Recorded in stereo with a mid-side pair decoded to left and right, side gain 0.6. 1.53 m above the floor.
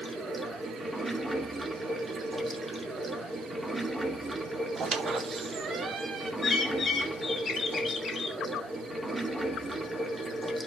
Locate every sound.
0.0 s running water: 10° right, 2 m
4.8 s a squeak: 40° right, 1.2 m
6.4 s a bird: 35° left, 1.8 m